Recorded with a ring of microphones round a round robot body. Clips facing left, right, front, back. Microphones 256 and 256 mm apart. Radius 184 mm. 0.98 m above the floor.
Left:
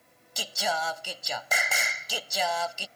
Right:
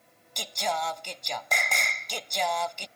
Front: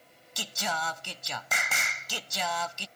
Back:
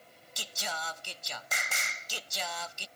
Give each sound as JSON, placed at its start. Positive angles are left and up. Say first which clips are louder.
{"t": 0.4, "sound": "singing", "louder": "even, front 6 dB", "azimuth_deg": 5}